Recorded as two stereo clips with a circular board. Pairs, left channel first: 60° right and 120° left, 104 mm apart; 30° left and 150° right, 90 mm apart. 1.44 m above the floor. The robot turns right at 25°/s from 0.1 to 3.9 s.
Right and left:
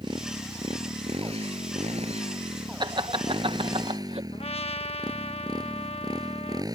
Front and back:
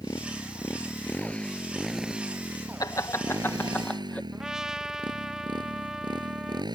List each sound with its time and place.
0.0 s a motorcycle: 75° left; by 6.8 s 170° left
2.8 s laughter: 80° left; by 4.2 s 105° left
4.3 s a trumpet: 65° right